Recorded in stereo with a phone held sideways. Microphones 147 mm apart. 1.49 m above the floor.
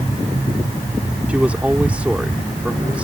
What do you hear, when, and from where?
1.3 s a man speaking: 10° right (ahead or behind)